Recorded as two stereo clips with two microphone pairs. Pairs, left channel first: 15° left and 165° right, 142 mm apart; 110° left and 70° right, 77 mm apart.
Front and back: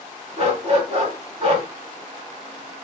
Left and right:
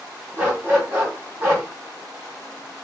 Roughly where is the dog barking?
Behind right.